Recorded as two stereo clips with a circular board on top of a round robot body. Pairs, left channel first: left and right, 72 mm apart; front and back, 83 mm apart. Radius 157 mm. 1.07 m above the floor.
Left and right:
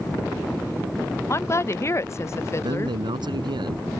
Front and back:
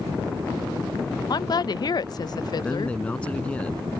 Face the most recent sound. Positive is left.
turn(degrees=-75)